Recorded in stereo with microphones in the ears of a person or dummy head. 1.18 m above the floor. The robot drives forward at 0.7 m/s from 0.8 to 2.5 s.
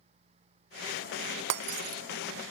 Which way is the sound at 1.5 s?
65° right (ahead or behind).